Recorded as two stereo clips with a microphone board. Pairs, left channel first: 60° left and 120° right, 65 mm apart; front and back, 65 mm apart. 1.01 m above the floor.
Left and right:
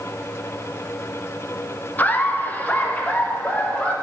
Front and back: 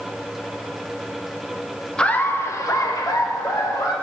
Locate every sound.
2.0 s laughter: 55° left, 0.7 m; by 3.9 s 10° right, 2.5 m